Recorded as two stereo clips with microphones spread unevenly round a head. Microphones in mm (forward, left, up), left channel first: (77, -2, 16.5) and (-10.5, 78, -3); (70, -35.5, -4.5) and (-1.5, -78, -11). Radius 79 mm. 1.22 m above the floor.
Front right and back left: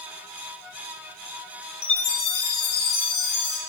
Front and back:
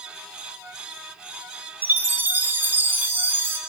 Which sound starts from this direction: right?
A chime, at 1.8 s.